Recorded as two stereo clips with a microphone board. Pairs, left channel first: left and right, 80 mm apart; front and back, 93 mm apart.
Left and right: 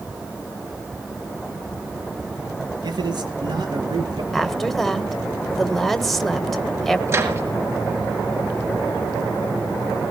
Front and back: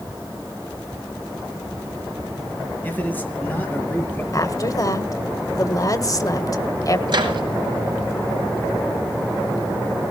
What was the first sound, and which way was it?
A man speaking, 70° right.